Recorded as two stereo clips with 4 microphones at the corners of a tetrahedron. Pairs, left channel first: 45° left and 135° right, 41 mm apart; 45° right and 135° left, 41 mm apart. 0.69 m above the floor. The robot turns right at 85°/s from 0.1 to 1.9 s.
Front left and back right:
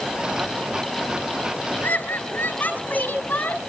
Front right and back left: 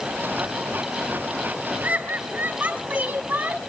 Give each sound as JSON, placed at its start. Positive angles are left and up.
{"t": 1.8, "sound": "laughter", "azimuth_deg": 90, "distance_m": 4.5}